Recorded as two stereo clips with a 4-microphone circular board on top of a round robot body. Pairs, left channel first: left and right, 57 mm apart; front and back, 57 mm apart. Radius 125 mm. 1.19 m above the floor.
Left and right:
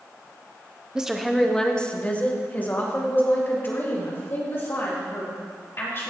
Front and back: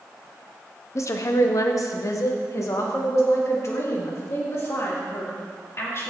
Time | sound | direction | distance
0.9 | a woman speaking | 15° right | 0.8 m